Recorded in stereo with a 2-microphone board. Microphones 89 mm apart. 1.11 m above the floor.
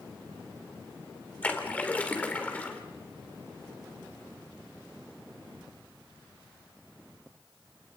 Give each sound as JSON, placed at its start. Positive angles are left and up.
{"t": 1.4, "sound": "a splash", "side_deg": 15, "distance_m": 2.5}